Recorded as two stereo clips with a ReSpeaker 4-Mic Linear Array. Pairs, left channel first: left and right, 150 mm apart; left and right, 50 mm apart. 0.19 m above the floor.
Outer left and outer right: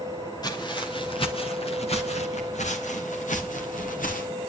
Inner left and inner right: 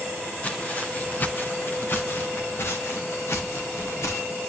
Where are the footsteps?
25° left (ahead or behind), 2.5 m; by 4.3 s 60° left (ahead or behind), 3.5 m.